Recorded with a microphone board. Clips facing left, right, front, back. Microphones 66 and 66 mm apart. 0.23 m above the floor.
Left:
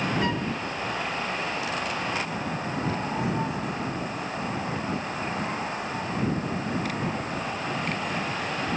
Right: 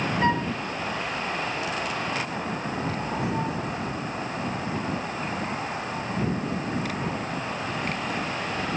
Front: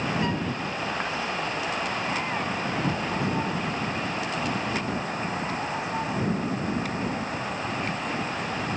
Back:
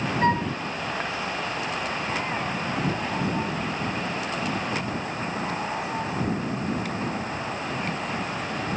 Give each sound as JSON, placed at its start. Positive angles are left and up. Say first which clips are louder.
{"t": 0.2, "sound": "a flute", "louder": "right 4 dB, back 5 dB", "azimuth_deg": -145}